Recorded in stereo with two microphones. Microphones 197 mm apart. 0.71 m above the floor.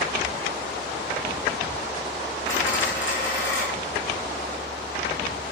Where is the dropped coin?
80° left, 9.5 m.